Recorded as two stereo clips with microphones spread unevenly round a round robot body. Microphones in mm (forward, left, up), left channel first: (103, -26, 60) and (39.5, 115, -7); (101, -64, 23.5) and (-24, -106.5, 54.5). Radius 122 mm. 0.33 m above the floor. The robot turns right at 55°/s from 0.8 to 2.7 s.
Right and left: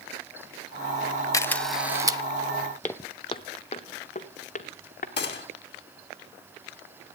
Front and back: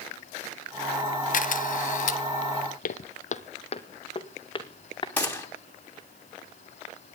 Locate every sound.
1.3 s a camera shutter: 10° left, 0.8 m; by 2.2 s 60° left, 0.8 m
2.8 s footsteps: straight ahead, 0.8 m; by 5.1 s 40° right, 2.5 m
5.2 s a gunshot: 50° right, 2.5 m